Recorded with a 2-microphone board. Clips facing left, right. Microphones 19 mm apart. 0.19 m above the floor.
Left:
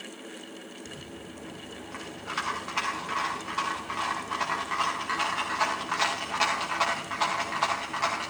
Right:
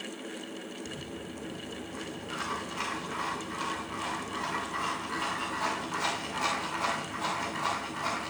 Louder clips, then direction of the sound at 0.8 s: Right 2 dB; 75° left (ahead or behind).